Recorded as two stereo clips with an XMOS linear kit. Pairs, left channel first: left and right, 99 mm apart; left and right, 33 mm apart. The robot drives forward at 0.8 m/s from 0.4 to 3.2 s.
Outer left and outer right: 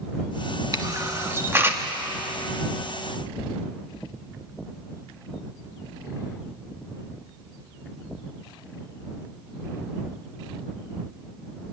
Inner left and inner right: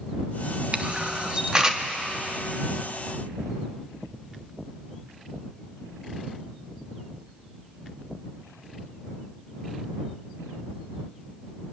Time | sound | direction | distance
0.7 | a camera shutter | 40° right (ahead or behind) | 1.1 m